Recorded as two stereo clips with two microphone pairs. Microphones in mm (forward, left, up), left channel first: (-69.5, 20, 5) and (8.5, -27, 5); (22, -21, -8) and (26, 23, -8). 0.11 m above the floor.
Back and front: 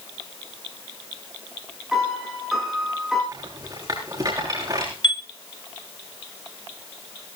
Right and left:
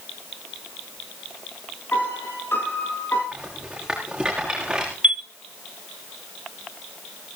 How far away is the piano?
About 7 m.